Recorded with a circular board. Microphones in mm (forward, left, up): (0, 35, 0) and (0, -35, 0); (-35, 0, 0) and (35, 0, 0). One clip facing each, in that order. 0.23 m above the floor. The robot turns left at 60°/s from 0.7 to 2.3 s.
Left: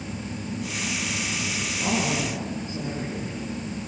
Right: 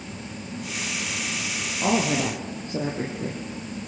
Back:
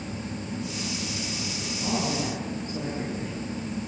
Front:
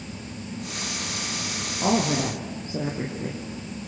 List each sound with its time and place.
1.8 s a woman speaking: 30° right, 4 m; by 3.4 s 60° right, 4 m